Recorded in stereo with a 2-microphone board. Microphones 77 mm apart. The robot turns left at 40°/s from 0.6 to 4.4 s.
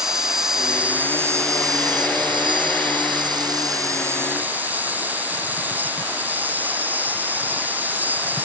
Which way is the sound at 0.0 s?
5° right.